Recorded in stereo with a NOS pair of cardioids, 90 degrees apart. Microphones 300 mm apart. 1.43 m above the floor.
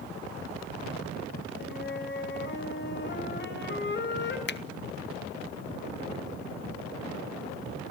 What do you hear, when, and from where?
1.6 s a flute: 40° left, 5.5 m
4.5 s a finger snap: 35° left, 1.2 m